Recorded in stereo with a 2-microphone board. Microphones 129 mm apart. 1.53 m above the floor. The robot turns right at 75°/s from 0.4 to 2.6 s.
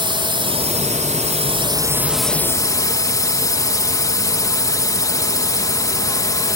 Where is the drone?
135° right; by 6.6 s 30° left.